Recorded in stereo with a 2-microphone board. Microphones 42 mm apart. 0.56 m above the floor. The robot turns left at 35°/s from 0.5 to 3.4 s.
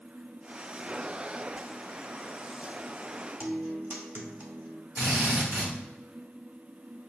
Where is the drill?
75° right (ahead or behind), 1.5 m.